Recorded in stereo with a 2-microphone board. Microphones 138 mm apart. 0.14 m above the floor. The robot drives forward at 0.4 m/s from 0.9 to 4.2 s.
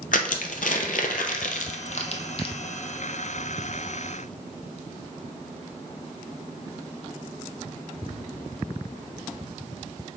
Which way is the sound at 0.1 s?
80° left.